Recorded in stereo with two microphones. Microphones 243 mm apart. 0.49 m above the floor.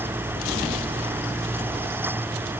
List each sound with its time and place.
Only background noise.